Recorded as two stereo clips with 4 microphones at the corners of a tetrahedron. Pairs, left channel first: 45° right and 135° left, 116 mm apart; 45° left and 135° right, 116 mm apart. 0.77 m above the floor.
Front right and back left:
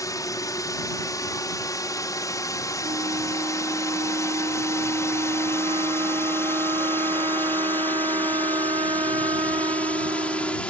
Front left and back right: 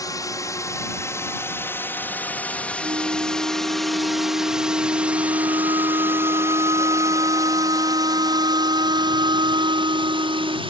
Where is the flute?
Straight behind.